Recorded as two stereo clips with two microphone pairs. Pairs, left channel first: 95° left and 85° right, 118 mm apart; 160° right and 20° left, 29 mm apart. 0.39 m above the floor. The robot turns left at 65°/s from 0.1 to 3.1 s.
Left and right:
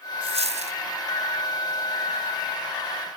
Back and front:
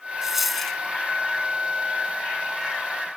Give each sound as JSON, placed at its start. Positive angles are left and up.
{"t": 0.2, "sound": "a dropped coin", "azimuth_deg": -50}